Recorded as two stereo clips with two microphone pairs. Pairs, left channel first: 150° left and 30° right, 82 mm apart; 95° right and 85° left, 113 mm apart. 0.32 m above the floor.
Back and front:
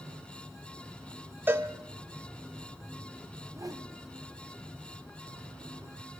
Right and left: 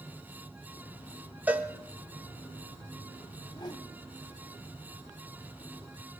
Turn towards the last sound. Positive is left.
turn(degrees=-55)